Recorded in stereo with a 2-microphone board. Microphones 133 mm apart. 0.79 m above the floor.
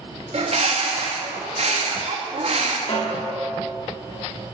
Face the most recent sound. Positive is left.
turn(degrees=55)  # may be behind; listen again after turning